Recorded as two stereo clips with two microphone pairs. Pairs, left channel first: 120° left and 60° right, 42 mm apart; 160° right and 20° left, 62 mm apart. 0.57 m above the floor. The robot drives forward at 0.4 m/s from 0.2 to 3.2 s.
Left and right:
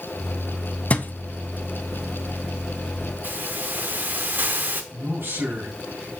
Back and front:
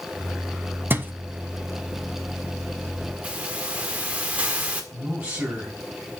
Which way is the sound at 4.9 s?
45° right.